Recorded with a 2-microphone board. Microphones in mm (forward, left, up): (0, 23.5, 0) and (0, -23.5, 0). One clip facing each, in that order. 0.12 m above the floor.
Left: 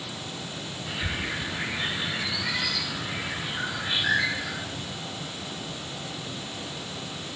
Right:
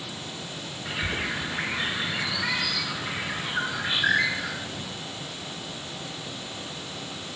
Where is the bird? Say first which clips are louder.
Right 2 dB; 70° right (ahead or behind), 2.5 m.